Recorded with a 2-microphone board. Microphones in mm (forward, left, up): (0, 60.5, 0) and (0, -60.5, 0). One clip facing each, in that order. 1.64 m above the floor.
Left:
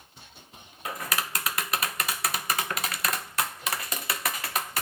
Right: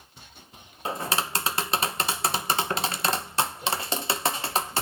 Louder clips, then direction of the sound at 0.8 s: Right 4 dB; 30° right (ahead or behind).